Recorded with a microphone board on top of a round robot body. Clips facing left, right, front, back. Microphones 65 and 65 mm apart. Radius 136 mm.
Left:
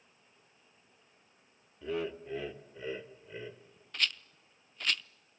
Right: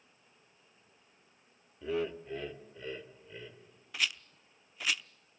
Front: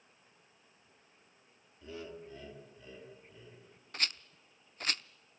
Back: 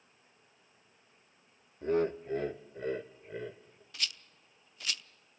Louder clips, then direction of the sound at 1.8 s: Right 1 dB, back 16 dB; 175° right.